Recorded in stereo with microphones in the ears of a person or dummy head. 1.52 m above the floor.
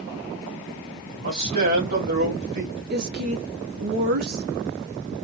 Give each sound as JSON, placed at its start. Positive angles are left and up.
{"t": 1.1, "sound": "a man speaking", "side_deg": -55, "distance_m": 2.5}
{"t": 2.9, "sound": "a woman speaking", "side_deg": -55, "distance_m": 1.0}